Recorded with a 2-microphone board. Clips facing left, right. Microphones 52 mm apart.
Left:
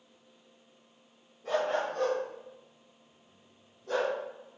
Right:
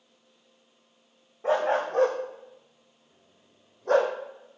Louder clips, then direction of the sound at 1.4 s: Right 5 dB; 80° right.